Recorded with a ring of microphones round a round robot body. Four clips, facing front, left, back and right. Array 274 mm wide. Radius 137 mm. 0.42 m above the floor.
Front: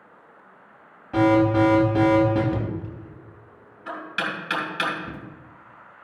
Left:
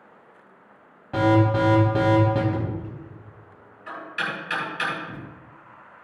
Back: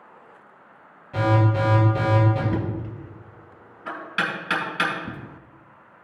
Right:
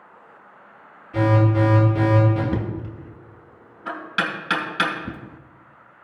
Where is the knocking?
110° right, 3 m.